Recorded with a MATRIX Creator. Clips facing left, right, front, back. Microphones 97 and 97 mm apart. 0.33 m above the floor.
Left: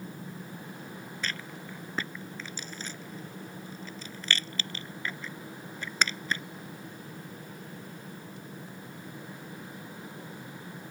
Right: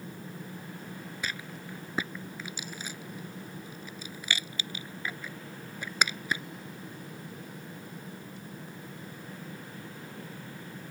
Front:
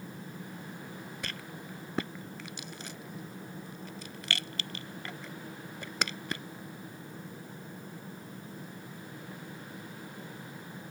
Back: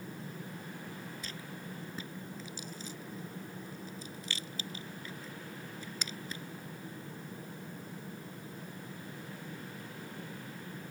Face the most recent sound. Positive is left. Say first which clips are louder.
# left 1 dB, front 2 dB
turn(degrees=-10)